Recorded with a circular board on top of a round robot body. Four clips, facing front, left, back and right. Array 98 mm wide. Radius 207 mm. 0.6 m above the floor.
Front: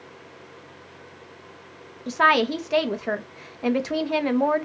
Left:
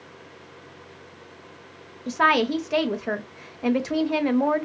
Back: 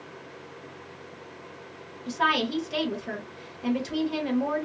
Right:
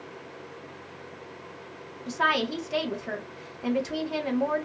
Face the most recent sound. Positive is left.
turn(degrees=35)